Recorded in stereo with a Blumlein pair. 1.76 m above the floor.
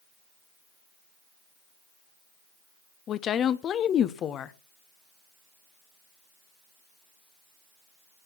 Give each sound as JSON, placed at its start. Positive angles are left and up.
{"t": 3.1, "sound": "a woman speaking", "azimuth_deg": 30, "distance_m": 1.1}